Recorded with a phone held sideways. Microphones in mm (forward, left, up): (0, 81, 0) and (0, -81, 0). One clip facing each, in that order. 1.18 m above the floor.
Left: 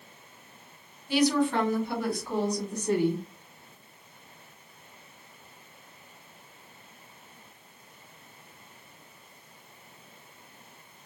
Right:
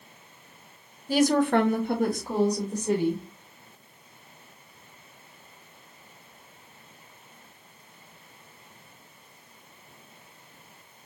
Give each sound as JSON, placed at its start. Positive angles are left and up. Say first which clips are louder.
{"t": 1.1, "sound": "a woman speaking", "louder": "right 3 dB", "side_deg": -40, "distance_m": 0.7}